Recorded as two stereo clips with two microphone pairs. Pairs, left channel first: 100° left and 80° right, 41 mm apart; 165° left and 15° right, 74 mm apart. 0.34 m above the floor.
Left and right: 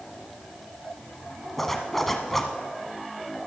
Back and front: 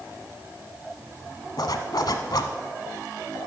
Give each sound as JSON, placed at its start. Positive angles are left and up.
{"t": 1.6, "sound": "a zipper", "azimuth_deg": 180, "distance_m": 0.9}